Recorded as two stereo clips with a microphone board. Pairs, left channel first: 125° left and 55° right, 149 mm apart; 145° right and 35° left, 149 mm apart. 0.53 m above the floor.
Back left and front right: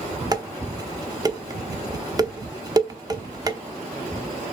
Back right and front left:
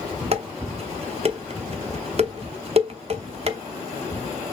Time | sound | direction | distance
0.3 | dishes clattering | straight ahead | 0.8 m